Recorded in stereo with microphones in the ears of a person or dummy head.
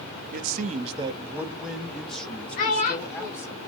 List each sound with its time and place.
0.3 s a man speaking: 55° right (ahead or behind), 0.6 m; by 3.6 s 20° left (ahead or behind), 1.9 m
2.6 s a child speaking: 45° left (ahead or behind), 0.7 m